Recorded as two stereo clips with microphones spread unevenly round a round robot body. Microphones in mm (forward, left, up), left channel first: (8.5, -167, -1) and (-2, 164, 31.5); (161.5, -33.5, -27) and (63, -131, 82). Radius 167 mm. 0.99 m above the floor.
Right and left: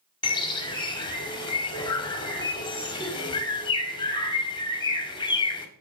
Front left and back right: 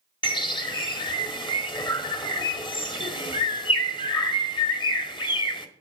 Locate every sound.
0.2 s a bird: 10° right, 1.8 m